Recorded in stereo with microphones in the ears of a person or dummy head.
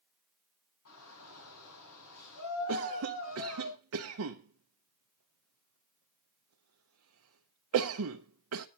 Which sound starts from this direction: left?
A shout, at 0.8 s.